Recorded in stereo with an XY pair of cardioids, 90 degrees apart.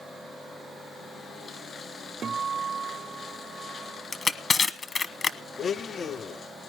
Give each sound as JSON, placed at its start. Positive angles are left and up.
{"t": 2.2, "sound": "a guitar", "azimuth_deg": -50, "distance_m": 0.7}
{"t": 4.1, "sound": "crushing", "azimuth_deg": 40, "distance_m": 1.2}
{"t": 5.6, "sound": "a blender", "azimuth_deg": 55, "distance_m": 0.6}